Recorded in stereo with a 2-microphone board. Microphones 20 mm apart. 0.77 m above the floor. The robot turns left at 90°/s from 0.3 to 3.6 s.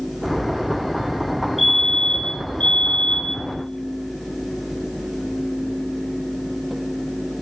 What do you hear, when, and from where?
1.6 s a fire alarm: 175° right, 4 m; by 3.4 s 15° left, 4 m